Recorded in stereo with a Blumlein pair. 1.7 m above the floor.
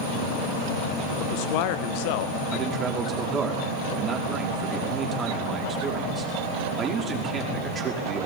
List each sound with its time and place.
1.2 s a man speaking: 45° left, 1.8 m
2.5 s a man speaking: 20° right, 5.5 m